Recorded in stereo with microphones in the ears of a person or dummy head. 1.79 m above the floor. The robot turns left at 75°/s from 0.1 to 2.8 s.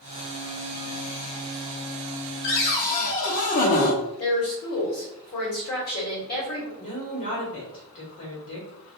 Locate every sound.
2.4 s a cupboard door: 60° left (ahead or behind), 0.5 m; by 4.0 s 40° left (ahead or behind), 0.5 m
4.2 s a woman speaking: 50° left (ahead or behind), 1.4 m
6.8 s a woman speaking: 50° left (ahead or behind), 1.3 m